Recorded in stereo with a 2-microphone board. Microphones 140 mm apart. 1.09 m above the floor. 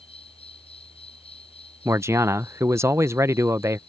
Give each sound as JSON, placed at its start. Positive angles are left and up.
{"t": 0.0, "sound": "an insect", "side_deg": 45}
{"t": 1.9, "sound": "a man speaking", "side_deg": -20}